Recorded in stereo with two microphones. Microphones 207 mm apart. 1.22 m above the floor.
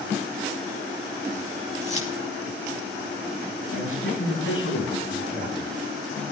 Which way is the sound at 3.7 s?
85° left.